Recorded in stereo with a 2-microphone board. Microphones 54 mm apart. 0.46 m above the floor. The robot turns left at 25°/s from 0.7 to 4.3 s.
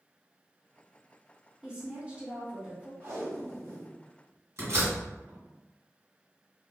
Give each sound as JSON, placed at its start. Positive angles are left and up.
{"t": 1.6, "sound": "a woman speaking", "azimuth_deg": -35, "distance_m": 1.4}
{"t": 3.0, "sound": "tape being pulled", "side_deg": -50, "distance_m": 1.6}
{"t": 4.6, "sound": "a door slam", "side_deg": -65, "distance_m": 1.6}